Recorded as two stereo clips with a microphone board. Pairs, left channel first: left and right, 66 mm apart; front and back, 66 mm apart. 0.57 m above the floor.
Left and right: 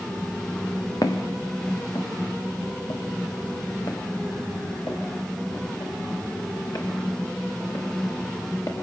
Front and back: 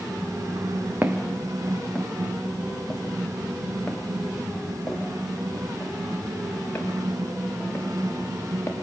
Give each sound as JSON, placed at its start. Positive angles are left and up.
{"t": 1.0, "sound": "footsteps", "azimuth_deg": 120, "distance_m": 2.0}